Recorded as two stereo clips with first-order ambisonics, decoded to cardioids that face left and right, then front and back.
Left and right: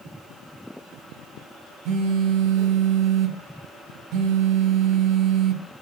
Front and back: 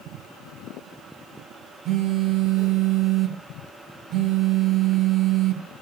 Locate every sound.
1.9 s a phone buzzing: 125° right, 0.6 m